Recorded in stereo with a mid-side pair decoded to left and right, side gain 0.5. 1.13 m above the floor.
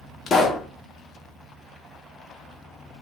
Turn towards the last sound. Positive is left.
turn(degrees=45)